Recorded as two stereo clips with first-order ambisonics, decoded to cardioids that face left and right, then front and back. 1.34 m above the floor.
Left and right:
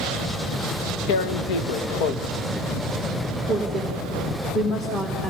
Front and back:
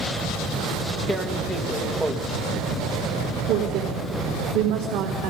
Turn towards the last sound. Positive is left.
turn(degrees=170)